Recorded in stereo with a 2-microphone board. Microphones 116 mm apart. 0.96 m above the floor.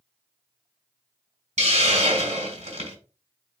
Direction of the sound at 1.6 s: 75° right (ahead or behind).